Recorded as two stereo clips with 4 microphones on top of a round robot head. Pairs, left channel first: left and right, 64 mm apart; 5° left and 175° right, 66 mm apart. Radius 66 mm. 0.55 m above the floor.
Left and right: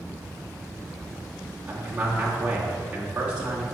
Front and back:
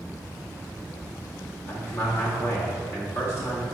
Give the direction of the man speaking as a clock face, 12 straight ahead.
1 o'clock.